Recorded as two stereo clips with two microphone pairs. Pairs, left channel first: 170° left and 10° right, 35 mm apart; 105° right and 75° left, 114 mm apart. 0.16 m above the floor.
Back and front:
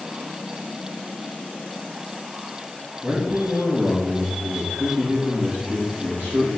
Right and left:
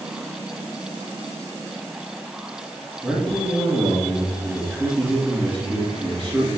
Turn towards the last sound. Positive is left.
turn(degrees=-5)